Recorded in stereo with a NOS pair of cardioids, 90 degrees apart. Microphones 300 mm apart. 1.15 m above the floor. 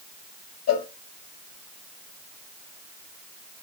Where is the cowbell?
60° left, 1.4 m.